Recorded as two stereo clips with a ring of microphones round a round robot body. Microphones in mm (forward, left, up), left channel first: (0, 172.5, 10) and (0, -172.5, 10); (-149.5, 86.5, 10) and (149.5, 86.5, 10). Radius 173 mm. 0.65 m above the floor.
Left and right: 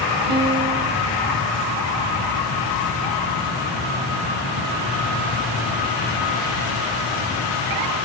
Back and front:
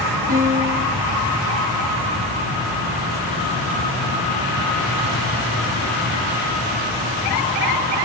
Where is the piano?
70° right, 2.5 m.